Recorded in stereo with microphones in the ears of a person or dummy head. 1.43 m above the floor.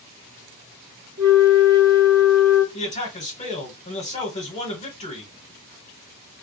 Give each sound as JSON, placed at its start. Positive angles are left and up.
{"t": 1.2, "sound": "a flute", "side_deg": 15, "distance_m": 1.8}
{"t": 2.7, "sound": "a man speaking", "side_deg": 35, "distance_m": 1.3}